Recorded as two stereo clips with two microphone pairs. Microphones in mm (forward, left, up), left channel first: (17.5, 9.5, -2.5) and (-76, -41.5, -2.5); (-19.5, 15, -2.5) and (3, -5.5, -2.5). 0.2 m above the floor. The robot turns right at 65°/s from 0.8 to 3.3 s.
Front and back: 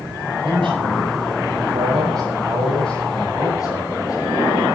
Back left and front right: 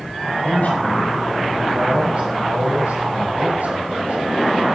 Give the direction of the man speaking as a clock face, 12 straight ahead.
6 o'clock.